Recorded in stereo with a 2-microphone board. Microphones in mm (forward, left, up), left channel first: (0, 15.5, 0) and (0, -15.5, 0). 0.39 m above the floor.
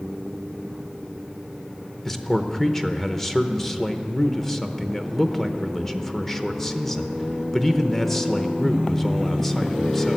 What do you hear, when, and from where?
2.0 s a man speaking: 10° left (ahead or behind), 0.8 m